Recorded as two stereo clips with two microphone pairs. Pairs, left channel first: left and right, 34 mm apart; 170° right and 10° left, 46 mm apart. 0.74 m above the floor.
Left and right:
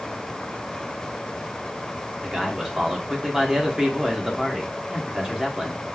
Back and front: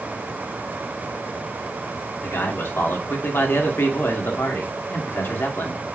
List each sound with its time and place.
2.2 s a man speaking: 155° right, 1.5 m